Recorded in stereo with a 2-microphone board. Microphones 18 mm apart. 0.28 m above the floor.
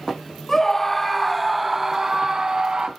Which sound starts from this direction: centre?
A scream, at 0.5 s.